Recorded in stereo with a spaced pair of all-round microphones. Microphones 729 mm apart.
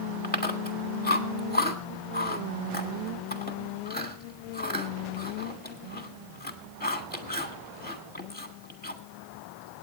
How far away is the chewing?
About 1.6 m.